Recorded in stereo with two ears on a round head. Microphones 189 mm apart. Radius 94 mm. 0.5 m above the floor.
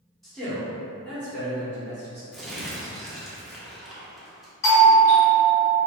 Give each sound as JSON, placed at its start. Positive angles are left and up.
{"t": 0.2, "sound": "a man speaking", "side_deg": 0, "distance_m": 1.3}
{"t": 2.3, "sound": "crumpling", "side_deg": 0, "distance_m": 0.7}
{"t": 4.6, "sound": "a doorbell", "side_deg": 15, "distance_m": 1.3}